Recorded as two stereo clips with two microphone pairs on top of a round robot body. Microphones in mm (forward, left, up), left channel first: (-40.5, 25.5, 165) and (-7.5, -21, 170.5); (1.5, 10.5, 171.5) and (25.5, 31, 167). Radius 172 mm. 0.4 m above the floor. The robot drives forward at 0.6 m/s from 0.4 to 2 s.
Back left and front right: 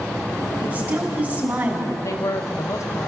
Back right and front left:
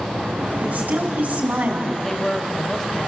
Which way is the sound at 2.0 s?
140° left.